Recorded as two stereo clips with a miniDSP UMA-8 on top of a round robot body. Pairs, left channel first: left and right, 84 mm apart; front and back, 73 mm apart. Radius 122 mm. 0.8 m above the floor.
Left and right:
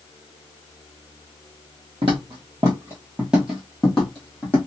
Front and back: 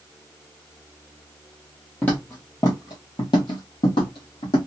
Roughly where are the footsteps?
Right.